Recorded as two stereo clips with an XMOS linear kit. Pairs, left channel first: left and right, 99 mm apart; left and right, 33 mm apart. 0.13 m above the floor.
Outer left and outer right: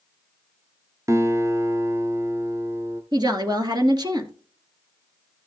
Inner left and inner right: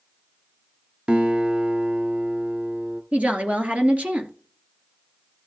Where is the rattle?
I don't hear a rattle.